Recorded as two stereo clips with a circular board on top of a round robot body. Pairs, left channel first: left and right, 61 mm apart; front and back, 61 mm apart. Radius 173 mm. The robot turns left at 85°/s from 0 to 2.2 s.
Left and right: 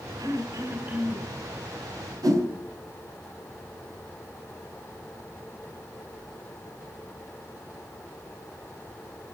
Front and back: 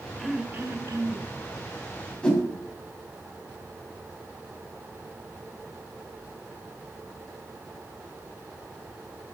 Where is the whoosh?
75° right, 3.5 m.